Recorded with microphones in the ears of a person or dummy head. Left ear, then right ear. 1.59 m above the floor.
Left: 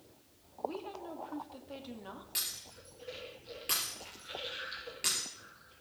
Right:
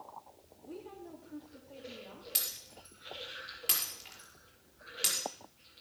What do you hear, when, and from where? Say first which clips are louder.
0.6 s a woman speaking: left 8 dB; 45° left (ahead or behind), 2.5 m
2.4 s breaking glass: even; 25° right (ahead or behind), 5 m